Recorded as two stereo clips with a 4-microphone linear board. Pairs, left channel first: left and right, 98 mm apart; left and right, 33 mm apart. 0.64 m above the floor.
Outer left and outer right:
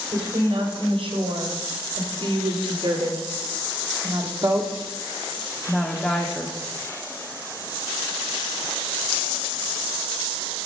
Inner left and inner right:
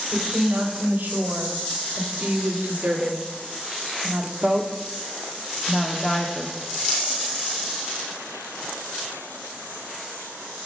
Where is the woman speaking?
75° right (ahead or behind), 3.5 m; by 6.6 s 20° left (ahead or behind), 1.5 m.